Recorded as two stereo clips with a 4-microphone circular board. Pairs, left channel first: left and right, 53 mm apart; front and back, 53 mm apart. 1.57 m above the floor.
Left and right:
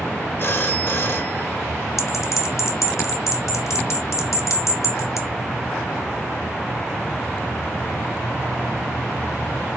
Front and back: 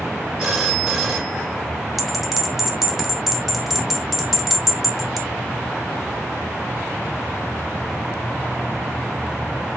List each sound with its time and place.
0.4 s a phone ringing: 110° left, 1.2 m
2.0 s a bell: 95° left, 0.9 m